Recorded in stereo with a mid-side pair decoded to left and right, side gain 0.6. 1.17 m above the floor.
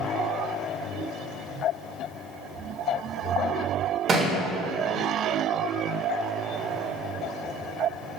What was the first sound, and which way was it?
A thud, 40° right.